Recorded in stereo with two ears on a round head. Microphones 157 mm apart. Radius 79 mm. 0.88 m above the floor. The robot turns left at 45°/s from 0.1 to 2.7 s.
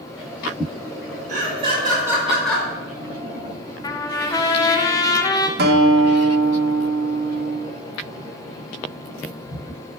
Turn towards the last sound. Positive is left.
turn(degrees=-60)  # may be behind; listen again after turning